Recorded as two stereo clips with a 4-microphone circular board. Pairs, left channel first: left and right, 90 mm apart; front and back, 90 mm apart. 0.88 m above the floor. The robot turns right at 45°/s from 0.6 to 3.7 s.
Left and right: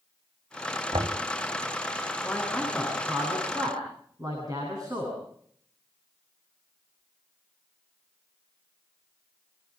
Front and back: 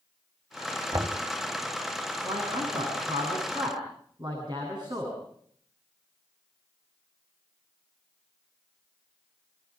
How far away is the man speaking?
About 9 m.